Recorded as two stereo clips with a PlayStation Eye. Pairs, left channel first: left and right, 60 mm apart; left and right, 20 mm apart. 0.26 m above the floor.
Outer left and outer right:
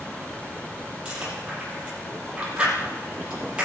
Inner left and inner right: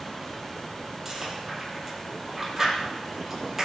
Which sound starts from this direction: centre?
Chewing, at 1.1 s.